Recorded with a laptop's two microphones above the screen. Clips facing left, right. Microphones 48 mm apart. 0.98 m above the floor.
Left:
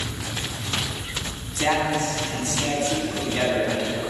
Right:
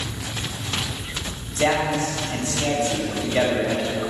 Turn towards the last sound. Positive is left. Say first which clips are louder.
# right 1 dB
turn(degrees=-65)  # may be behind; listen again after turning